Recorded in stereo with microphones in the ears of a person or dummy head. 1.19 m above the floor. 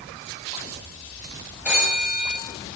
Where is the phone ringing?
10° right (ahead or behind), 5 m.